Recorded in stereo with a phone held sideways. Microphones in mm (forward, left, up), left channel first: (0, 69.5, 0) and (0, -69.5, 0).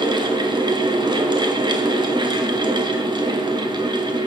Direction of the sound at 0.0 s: 30° right (ahead or behind).